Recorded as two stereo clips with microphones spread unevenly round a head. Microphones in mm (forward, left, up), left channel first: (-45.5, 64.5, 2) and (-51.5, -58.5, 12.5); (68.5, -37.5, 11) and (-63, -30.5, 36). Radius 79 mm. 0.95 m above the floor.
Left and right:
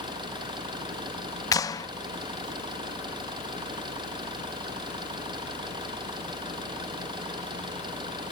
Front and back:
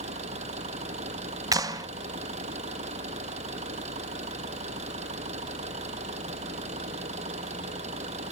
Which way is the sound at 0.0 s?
145° right.